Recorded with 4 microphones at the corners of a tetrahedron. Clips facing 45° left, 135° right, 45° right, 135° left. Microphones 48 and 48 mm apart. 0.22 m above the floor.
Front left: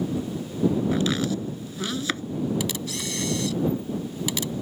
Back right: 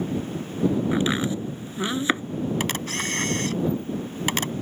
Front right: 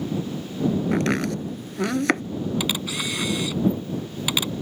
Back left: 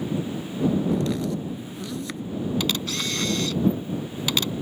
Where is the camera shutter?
120° right.